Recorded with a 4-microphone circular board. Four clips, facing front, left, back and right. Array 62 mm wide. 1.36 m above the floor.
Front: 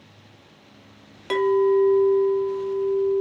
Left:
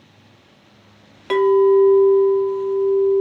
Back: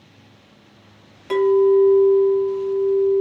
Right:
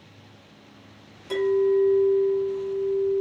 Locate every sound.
1.3 s a clink: 75° left, 0.9 m